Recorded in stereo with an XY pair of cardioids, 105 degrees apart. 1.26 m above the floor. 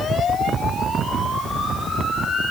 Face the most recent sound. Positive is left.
No sound to turn to.